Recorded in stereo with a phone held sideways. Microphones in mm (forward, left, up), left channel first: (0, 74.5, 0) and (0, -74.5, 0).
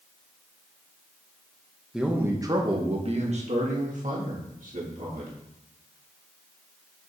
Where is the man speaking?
5° right (ahead or behind), 1.0 m; by 5.3 s 60° right (ahead or behind), 2.5 m.